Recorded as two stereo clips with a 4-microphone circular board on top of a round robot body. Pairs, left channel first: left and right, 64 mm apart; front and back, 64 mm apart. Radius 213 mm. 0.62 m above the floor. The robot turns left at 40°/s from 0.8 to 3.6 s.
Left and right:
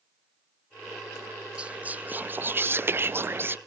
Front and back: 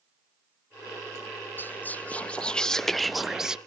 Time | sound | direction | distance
1.6 | whispering | 30° right | 0.6 m